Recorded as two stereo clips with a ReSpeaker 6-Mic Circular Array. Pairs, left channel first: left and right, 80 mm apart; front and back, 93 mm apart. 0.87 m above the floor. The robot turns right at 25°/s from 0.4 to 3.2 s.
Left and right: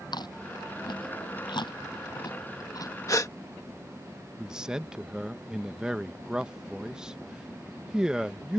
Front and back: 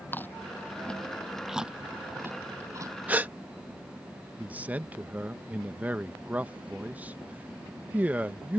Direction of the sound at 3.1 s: 115° left.